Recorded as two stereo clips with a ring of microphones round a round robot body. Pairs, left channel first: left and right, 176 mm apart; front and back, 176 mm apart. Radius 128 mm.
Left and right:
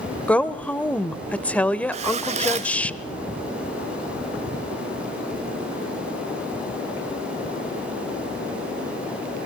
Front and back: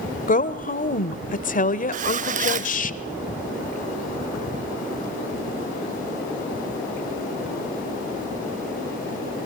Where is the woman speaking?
10° left, 1.1 m.